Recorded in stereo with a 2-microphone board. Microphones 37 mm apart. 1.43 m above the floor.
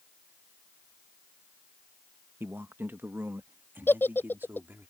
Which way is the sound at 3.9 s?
70° left (ahead or behind).